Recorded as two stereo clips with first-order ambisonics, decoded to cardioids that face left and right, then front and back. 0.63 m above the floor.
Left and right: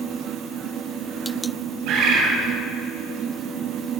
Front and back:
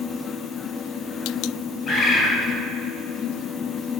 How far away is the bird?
About 1.9 m.